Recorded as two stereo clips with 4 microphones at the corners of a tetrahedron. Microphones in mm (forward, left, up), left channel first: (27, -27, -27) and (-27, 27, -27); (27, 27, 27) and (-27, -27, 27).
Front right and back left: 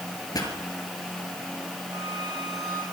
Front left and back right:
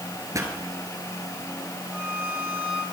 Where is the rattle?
I don't hear a rattle.